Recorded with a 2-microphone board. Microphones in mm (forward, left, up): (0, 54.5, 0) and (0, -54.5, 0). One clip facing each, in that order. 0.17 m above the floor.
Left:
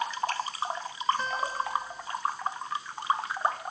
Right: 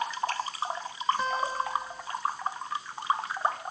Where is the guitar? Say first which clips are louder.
Right 2 dB; 10° right (ahead or behind), 1.7 m.